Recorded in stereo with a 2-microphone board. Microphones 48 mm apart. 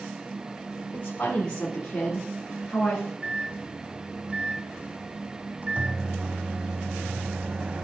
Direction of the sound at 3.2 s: 30° right (ahead or behind).